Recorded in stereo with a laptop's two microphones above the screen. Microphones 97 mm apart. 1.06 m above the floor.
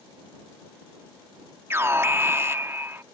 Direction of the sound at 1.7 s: 25° right (ahead or behind).